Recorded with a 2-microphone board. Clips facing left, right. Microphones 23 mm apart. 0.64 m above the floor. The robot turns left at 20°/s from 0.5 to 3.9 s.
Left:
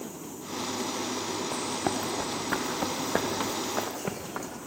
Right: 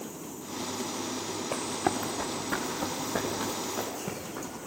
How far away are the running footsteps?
About 2.5 m.